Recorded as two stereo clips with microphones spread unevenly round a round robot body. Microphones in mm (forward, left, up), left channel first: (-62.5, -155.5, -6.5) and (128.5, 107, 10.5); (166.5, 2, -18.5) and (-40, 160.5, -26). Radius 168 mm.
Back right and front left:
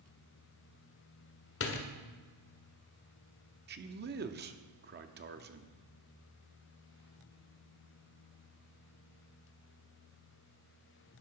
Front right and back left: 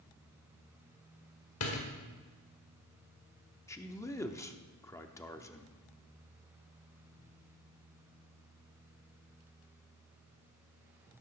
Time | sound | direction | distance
1.6 | a door slam | 80° right | 1.6 m
3.7 | a man speaking | 35° left | 0.8 m